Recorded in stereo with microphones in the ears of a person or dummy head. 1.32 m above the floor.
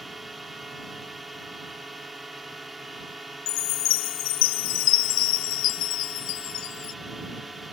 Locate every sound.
0.0 s a drone: 5° right (ahead or behind)
3.5 s a chime: 60° left (ahead or behind)